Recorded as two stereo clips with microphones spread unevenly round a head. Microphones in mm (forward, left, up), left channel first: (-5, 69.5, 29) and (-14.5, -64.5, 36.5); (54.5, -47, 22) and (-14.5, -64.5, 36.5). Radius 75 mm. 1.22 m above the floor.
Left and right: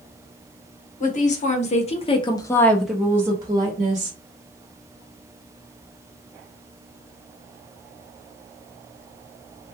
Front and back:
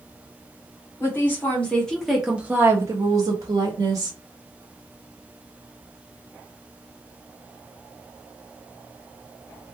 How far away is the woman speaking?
About 1.0 m.